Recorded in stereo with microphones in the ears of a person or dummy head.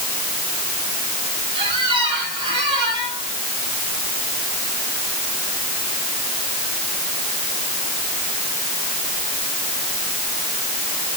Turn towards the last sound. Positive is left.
turn(degrees=-25)  # may be behind; listen again after turning